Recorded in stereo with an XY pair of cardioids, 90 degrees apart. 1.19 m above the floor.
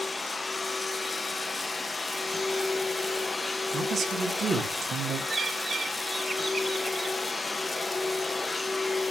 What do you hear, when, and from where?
0.0 s a machine running: 30° left, 0.9 m
3.7 s a man speaking: 55° right, 3 m
5.3 s a bird: 35° right, 2.5 m